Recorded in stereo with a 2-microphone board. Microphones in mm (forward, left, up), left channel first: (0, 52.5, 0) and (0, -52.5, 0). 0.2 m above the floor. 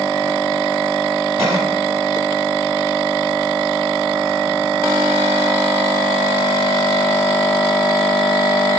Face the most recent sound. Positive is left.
turn(degrees=-20)  # may be behind; listen again after turning